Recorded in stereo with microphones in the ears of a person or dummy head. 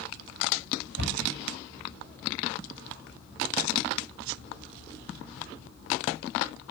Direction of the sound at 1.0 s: 65° right (ahead or behind).